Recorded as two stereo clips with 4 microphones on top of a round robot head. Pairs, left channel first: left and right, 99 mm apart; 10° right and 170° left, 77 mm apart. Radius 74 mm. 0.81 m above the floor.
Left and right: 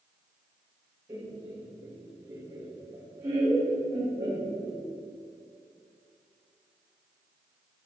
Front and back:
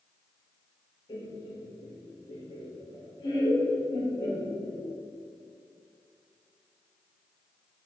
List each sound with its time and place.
1.1 s laughter: 30° right, 3.5 m